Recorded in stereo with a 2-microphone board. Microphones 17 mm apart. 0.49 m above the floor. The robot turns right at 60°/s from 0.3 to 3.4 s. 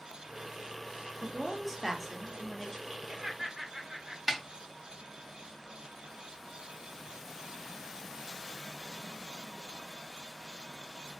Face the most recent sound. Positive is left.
turn(degrees=-15)  # may be behind; listen again after turning